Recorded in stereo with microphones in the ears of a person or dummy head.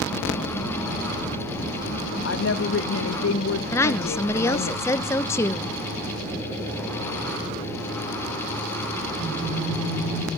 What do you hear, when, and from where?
2.2 s a woman speaking: 80° left, 0.7 m
3.7 s a woman speaking: 20° left (ahead or behind), 0.8 m